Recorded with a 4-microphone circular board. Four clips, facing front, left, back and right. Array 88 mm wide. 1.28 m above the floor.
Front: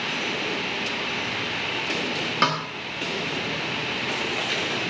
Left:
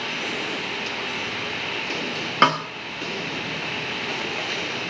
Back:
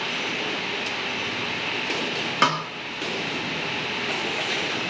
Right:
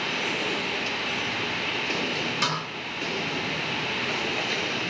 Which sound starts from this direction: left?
A snare drum, at 2.4 s.